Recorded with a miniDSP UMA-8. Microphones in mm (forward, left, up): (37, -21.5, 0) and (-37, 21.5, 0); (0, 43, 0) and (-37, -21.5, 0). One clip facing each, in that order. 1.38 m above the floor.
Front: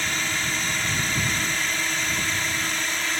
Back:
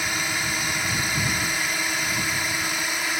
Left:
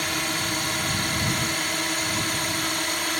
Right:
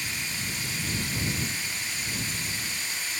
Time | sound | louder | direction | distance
0.0 | a drone | even, left 8 dB | 70° left | ?